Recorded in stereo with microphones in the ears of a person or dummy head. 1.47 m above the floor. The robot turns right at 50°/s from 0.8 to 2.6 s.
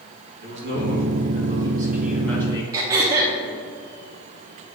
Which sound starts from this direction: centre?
Throat clearing, at 2.7 s.